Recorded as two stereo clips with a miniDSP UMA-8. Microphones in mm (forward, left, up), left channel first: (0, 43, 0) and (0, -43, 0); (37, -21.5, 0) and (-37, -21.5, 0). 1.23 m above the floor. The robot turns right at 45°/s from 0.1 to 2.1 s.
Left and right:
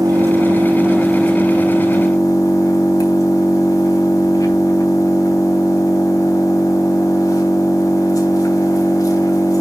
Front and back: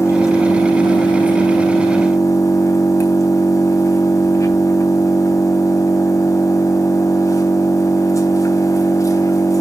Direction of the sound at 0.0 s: 45° right.